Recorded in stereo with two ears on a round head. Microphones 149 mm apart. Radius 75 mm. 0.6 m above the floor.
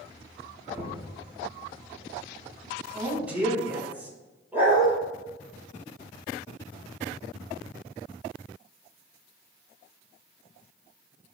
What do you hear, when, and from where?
0.7 s knocking: 15° right (ahead or behind), 4.5 m
2.9 s a man speaking: 10° right (ahead or behind), 5 m
4.5 s a dog barking: 10° right (ahead or behind), 4.5 m